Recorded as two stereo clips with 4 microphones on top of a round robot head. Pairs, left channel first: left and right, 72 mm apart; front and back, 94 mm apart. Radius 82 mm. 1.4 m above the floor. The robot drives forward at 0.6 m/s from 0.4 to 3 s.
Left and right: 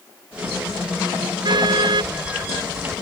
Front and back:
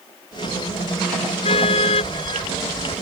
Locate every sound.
1.4 s a car horn: 45° right